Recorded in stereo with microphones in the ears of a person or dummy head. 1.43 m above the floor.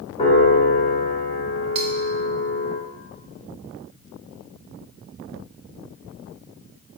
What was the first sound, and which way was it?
A piano, 35° left (ahead or behind).